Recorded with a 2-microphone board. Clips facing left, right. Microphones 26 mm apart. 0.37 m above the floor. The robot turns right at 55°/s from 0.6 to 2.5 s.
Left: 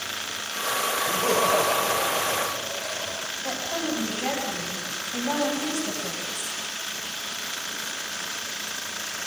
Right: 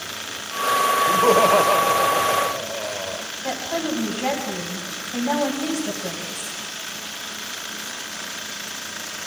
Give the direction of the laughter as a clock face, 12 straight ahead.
5 o'clock.